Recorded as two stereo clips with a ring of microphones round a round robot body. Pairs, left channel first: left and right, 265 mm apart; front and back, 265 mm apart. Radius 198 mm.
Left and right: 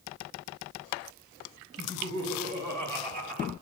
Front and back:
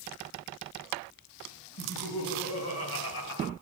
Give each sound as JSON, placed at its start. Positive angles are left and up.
{"t": 1.8, "sound": "laughter", "azimuth_deg": -25, "distance_m": 4.0}